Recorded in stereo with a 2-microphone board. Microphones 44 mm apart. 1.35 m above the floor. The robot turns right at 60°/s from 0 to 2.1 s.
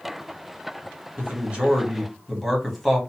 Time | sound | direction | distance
1.2 | a man speaking | 50° right | 1.5 m